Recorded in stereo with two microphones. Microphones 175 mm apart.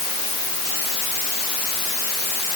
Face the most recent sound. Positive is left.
No sound to turn to.